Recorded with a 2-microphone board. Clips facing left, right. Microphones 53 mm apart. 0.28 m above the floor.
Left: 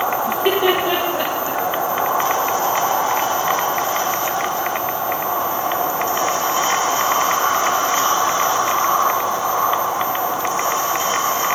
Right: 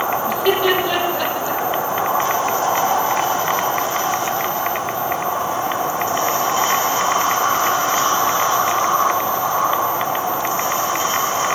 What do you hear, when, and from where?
0.3 s laughter: 20° left (ahead or behind), 8 m